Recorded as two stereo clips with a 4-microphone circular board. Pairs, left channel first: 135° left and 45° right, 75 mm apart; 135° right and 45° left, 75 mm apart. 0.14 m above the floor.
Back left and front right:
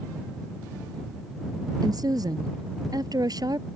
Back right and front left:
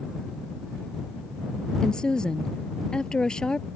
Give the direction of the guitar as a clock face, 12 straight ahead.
No guitar in this recording.